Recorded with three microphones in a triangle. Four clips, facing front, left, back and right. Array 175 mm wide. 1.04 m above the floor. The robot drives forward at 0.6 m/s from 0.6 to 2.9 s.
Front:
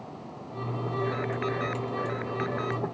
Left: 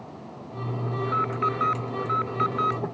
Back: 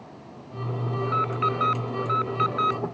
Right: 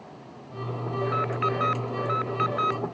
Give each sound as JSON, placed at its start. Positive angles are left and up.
{"t": 1.0, "sound": "an alarm", "azimuth_deg": -75}